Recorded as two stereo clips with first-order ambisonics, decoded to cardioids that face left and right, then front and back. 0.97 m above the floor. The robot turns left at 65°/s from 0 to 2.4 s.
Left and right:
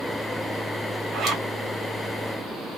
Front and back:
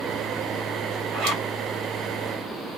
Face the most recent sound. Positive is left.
turn(degrees=135)